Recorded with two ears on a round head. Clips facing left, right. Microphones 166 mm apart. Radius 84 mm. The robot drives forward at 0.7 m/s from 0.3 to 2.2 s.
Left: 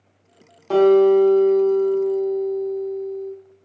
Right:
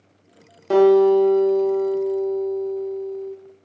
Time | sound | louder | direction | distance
0.7 | a guitar | even | 25° right (ahead or behind) | 1.0 m